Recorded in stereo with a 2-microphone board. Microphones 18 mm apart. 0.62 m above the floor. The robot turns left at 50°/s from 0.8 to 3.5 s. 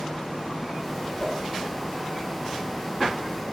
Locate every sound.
1.2 s a whoosh: 80° left, 3.5 m; by 1.4 s 70° left (ahead or behind), 3.5 m